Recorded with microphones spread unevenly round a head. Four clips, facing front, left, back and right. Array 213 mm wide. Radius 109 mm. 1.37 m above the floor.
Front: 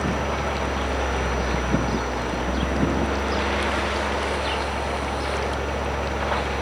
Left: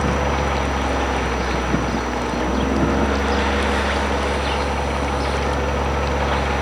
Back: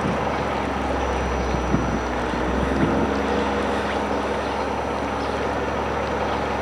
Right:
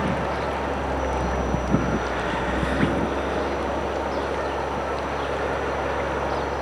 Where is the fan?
115° left, 4.5 m.